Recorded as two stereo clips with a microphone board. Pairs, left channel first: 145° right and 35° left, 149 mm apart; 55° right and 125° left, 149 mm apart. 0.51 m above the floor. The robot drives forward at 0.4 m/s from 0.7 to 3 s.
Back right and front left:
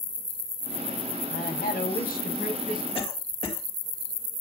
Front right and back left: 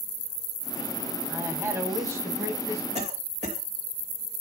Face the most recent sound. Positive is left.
turn(degrees=165)